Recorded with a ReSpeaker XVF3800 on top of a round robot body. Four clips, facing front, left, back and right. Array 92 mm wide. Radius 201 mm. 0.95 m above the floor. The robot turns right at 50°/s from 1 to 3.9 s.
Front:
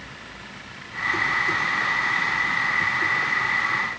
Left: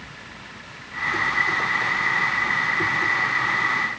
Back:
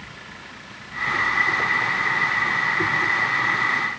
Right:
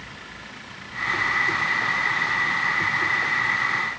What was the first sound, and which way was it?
Only background noise.